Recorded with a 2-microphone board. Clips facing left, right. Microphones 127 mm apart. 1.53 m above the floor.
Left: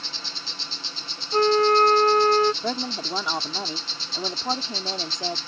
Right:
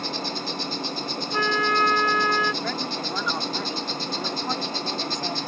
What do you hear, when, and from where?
0.0 s an insect: 55° right (ahead or behind)
1.3 s a flute: 40° left (ahead or behind)
2.6 s a woman speaking: 20° left (ahead or behind)